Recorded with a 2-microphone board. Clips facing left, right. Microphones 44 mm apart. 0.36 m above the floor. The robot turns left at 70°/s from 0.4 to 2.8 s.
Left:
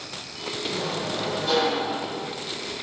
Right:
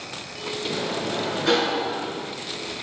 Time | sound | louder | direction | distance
0.7 | a sliding door | right 2 dB | 20° right | 4.5 m